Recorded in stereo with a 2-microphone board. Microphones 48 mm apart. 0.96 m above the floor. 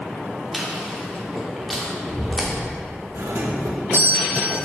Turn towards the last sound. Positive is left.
turn(degrees=-70)  # may be behind; listen again after turning